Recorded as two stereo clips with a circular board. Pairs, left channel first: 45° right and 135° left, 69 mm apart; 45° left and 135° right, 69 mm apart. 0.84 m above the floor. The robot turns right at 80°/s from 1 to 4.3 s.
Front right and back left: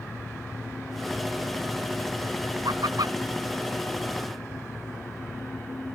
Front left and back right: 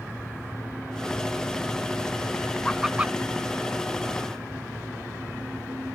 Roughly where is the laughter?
Behind left.